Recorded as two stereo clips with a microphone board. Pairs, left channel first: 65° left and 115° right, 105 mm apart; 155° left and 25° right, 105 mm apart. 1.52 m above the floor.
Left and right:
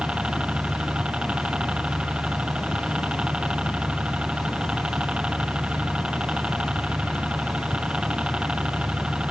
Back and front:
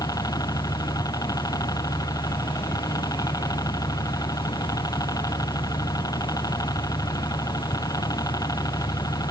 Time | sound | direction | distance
0.0 | a helicopter | 175° left | ?